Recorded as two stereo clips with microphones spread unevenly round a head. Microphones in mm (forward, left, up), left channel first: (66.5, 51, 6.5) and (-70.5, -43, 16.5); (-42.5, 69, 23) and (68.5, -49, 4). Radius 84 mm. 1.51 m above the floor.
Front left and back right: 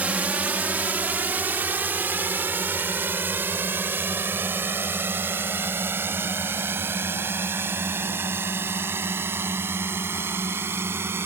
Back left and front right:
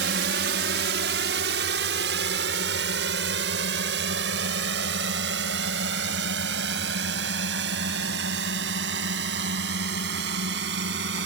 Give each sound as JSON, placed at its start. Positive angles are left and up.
{"t": 0.0, "sound": "a drone", "azimuth_deg": -65}